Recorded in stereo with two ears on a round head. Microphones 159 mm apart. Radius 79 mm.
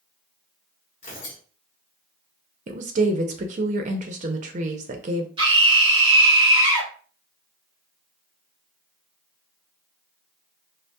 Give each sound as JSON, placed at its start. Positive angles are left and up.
{"t": 1.0, "sound": "tearing paper", "side_deg": 35, "distance_m": 2.0}
{"t": 2.7, "sound": "a woman speaking", "side_deg": -45, "distance_m": 0.5}
{"t": 5.4, "sound": "a scream", "side_deg": -30, "distance_m": 1.7}